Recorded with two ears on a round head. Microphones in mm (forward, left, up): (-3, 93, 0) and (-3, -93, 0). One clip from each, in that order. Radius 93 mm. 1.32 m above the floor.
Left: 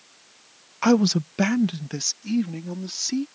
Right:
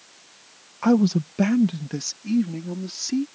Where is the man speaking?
70° left (ahead or behind); by 3.2 s 25° left (ahead or behind).